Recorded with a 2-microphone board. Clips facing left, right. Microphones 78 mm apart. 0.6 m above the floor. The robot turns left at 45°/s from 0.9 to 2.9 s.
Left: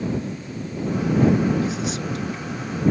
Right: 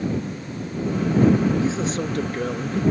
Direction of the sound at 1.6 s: 25° right.